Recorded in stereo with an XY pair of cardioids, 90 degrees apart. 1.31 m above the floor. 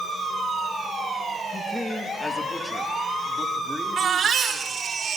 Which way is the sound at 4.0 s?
55° right.